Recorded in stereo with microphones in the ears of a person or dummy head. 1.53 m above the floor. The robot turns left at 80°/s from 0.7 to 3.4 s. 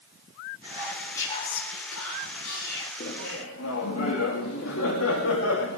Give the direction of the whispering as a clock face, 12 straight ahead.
5 o'clock.